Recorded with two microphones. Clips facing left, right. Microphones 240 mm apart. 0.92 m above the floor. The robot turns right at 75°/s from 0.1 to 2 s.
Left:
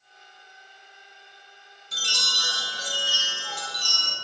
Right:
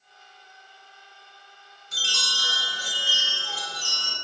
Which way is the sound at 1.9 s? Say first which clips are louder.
Left 1 dB; 35° left (ahead or behind).